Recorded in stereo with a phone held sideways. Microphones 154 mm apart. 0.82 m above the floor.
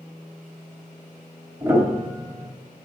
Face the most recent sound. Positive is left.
turn(degrees=-15)  # may be behind; listen again after turning